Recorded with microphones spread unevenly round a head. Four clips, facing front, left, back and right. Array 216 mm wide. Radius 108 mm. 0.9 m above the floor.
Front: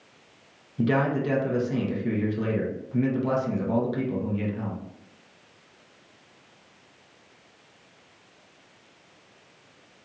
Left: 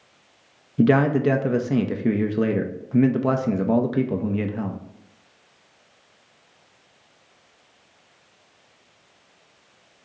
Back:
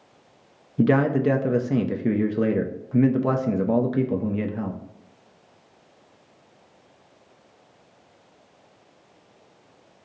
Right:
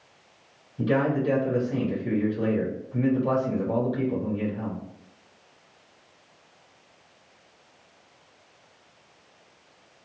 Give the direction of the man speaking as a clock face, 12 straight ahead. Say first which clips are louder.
Left 6 dB, back 5 dB; 8 o'clock.